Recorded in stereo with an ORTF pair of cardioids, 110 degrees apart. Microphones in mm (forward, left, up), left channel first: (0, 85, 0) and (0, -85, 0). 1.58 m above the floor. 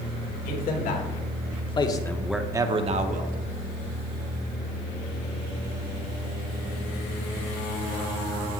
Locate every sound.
0.5 s a man speaking: 60° left, 1.8 m; by 3.4 s 55° right, 1.1 m